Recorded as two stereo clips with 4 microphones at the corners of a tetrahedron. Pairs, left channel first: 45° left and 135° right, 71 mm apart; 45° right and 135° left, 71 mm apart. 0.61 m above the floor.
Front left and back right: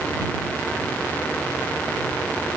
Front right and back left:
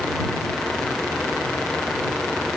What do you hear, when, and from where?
Only background noise.